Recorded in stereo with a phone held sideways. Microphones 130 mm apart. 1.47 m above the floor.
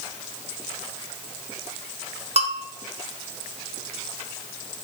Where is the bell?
50° right (ahead or behind), 0.9 m.